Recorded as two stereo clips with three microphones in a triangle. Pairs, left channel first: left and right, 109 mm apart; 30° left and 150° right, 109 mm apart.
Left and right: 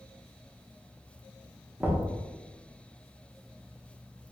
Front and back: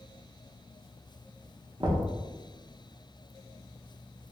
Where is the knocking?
150° right, 0.6 m.